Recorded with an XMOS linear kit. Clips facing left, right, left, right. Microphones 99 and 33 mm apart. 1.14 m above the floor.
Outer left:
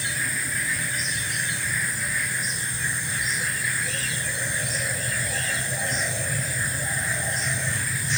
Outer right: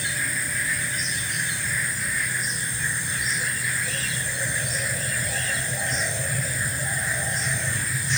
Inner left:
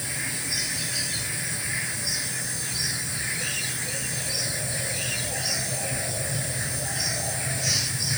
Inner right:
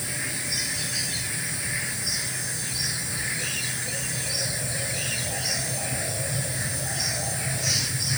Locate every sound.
Only background noise.